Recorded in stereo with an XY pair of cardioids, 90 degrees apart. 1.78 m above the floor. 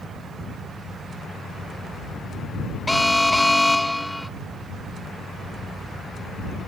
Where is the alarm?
10° left.